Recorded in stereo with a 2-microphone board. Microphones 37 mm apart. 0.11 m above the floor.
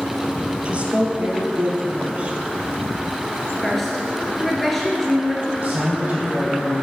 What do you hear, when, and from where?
0.7 s a woman speaking: 35° right (ahead or behind), 2 m
3.6 s a woman speaking: 5° left (ahead or behind), 1.8 m
5.6 s a man speaking: 40° right (ahead or behind), 3.5 m